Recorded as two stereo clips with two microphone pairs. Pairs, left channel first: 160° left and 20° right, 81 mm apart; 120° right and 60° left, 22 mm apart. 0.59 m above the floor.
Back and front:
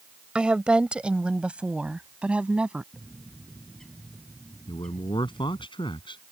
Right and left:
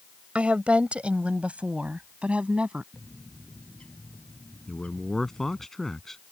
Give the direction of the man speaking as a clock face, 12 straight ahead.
7 o'clock.